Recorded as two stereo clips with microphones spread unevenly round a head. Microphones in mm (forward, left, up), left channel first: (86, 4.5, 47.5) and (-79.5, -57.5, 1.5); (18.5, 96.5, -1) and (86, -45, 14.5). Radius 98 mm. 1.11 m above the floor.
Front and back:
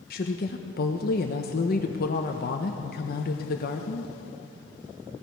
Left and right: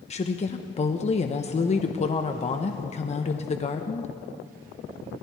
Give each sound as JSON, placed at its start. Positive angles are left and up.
{"t": 0.1, "sound": "a woman speaking", "azimuth_deg": 70, "distance_m": 0.8}